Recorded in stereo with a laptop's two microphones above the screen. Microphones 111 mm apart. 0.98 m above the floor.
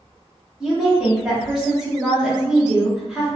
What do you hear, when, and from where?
0.6 s a woman speaking: 5° right (ahead or behind), 0.8 m